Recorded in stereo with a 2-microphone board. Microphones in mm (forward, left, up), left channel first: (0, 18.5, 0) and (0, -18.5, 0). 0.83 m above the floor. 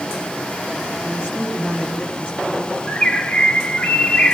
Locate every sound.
1.0 s a woman speaking: 35° left (ahead or behind), 6.5 m
2.9 s a bird: 30° left (ahead or behind), 1.0 m